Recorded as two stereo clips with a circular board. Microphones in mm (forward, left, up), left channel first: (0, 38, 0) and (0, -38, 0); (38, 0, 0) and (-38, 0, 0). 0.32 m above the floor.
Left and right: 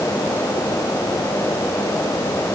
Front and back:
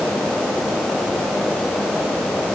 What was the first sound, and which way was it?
Only background noise.